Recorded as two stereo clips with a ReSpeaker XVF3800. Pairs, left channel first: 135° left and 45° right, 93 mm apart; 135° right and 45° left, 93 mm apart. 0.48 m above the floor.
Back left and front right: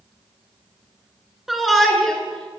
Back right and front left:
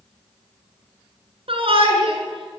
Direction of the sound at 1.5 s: 45° left.